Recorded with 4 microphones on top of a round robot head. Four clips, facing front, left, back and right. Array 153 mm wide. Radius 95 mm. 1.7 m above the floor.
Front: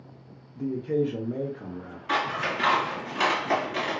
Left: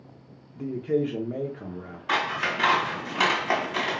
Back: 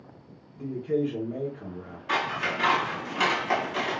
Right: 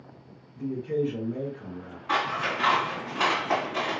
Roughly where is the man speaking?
Ahead left.